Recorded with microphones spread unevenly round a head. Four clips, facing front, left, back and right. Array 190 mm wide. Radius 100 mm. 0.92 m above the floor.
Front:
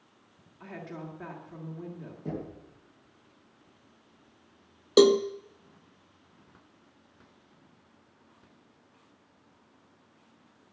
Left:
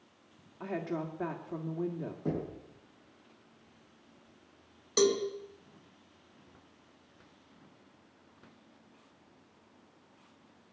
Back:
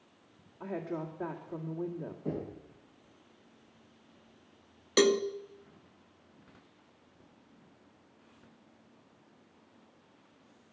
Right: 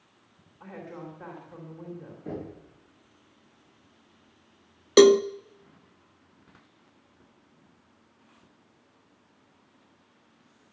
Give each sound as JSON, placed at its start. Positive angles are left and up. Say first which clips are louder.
{"t": 0.6, "sound": "a woman speaking", "louder": "left 6 dB, back 5 dB", "azimuth_deg": 95, "distance_m": 2.0}
{"t": 2.2, "sound": "knocking", "louder": "left 1 dB, front 1 dB", "azimuth_deg": 45, "distance_m": 6.5}
{"t": 5.0, "sound": "a cowbell", "louder": "right 12 dB, front 6 dB", "azimuth_deg": -65, "distance_m": 0.7}